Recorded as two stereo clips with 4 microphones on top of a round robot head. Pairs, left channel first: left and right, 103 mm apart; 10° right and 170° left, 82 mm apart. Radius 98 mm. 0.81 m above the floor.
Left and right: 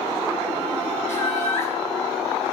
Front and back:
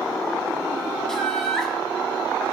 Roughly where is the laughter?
Left.